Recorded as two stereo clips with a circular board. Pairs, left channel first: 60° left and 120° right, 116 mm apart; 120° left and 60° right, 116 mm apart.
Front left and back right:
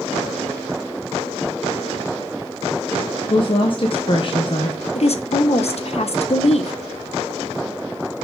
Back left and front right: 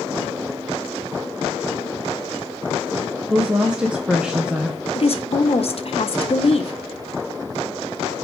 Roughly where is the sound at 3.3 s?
Ahead.